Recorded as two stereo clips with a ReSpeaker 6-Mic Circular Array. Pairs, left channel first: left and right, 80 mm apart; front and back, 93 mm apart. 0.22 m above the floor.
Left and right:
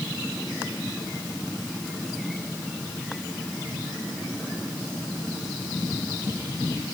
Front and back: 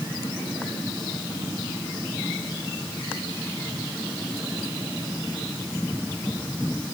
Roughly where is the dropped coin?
No dropped coin in this recording.